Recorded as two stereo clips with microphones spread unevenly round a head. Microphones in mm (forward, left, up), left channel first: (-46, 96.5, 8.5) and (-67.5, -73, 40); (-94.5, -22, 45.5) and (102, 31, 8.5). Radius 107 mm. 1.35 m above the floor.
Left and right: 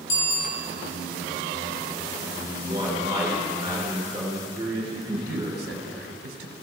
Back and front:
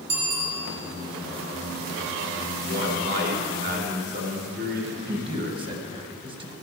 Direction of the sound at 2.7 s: 25° right.